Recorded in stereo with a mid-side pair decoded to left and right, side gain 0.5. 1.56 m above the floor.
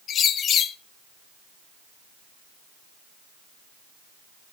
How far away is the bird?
About 1.0 m.